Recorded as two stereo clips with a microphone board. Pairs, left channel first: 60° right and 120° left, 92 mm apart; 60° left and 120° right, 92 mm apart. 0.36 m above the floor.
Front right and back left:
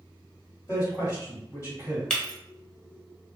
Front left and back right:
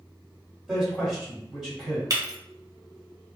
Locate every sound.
0.7 s a man speaking: 40° right, 1.7 m
2.1 s breaking glass: 140° right, 0.6 m